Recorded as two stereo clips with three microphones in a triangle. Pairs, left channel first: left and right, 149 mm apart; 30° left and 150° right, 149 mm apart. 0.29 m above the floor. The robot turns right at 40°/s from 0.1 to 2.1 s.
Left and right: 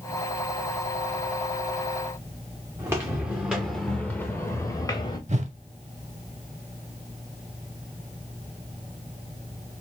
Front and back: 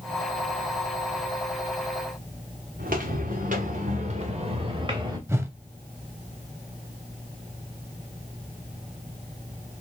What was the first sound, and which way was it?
Footsteps, 160° right.